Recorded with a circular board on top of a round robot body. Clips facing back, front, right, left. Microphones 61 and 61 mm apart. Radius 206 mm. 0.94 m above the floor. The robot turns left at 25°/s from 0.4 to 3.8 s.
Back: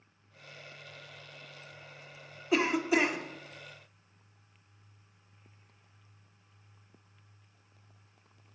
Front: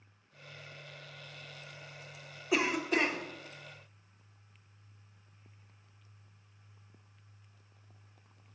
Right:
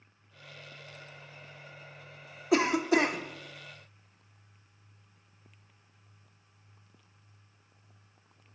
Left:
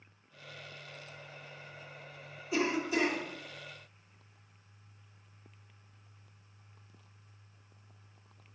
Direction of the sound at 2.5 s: 85° right.